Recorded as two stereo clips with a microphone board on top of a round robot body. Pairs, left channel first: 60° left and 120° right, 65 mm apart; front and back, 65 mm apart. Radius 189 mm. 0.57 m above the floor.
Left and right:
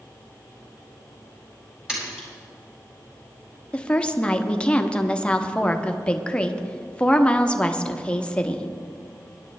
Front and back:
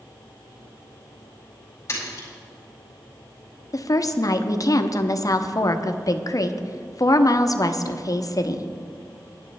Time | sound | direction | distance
1.9 | a splash | 40° right | 4.5 m
3.7 | a woman speaking | 10° right | 1.0 m